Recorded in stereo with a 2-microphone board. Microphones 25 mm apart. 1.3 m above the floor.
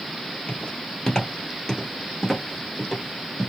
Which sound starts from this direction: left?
Footsteps, at 0.5 s.